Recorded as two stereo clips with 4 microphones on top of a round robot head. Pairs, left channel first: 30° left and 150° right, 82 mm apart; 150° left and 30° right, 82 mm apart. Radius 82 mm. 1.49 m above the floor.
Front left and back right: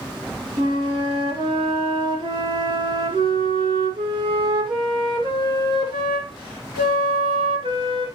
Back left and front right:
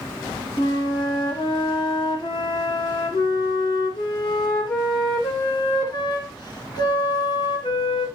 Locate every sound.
0.6 s a flute: 175° right, 2 m